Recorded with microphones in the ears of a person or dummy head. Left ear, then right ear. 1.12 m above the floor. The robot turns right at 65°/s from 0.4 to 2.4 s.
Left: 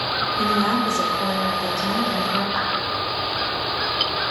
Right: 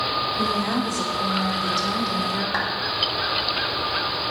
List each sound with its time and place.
0.4 s a woman speaking: 65° left, 3 m; by 2.4 s 165° right, 3 m
2.5 s a clap: 80° right, 5 m